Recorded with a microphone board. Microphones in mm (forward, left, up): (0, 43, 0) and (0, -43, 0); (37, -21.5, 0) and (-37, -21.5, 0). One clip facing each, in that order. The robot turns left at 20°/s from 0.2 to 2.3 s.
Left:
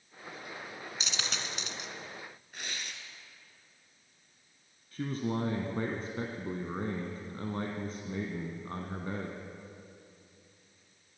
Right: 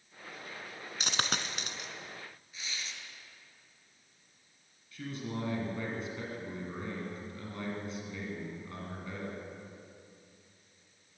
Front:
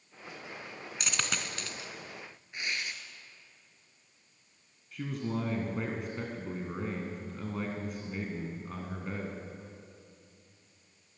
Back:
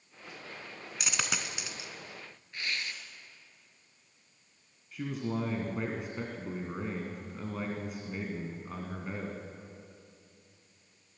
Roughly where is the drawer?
No drawer in this recording.